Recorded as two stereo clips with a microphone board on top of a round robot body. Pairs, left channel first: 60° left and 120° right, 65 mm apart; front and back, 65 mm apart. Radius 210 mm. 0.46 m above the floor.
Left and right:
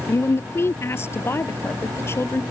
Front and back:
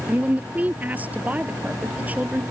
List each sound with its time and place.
0.1 s a woman speaking: 110° left